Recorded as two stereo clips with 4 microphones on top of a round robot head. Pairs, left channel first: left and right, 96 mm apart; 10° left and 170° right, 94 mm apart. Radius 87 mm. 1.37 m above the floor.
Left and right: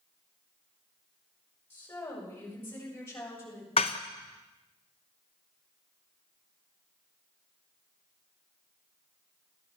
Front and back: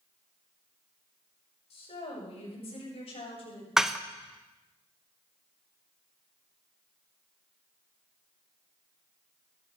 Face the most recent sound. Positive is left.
turn(degrees=105)